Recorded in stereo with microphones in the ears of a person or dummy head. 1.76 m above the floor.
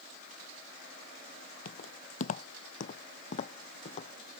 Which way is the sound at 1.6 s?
45° left (ahead or behind).